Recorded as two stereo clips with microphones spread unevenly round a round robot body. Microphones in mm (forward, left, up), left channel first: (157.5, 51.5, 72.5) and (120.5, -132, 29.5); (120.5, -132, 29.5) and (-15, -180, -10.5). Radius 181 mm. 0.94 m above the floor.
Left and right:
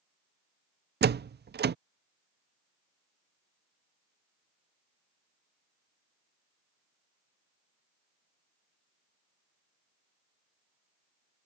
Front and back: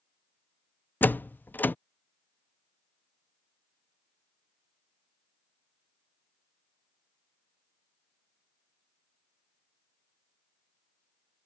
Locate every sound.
1.0 s a door slam: 60° right